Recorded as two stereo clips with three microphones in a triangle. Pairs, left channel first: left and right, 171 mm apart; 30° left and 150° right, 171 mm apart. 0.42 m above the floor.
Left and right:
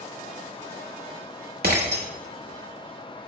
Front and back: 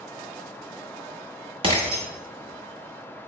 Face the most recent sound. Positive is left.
turn(degrees=-95)